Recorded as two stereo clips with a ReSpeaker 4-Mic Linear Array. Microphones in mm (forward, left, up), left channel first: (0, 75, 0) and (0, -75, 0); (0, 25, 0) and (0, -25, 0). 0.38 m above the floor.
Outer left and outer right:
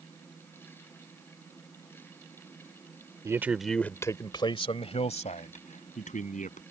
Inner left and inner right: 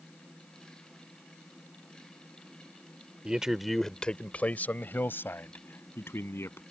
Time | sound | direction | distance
3.2 | a man speaking | 20° right (ahead or behind) | ?